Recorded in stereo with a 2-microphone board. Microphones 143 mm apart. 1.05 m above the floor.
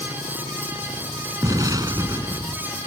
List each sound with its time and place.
1.4 s an explosion: 25° right (ahead or behind)